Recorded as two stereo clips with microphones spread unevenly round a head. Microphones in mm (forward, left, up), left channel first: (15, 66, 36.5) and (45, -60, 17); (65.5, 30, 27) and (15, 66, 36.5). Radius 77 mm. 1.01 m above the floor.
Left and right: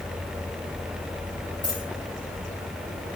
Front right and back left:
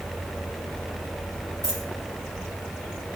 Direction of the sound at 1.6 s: 45° left.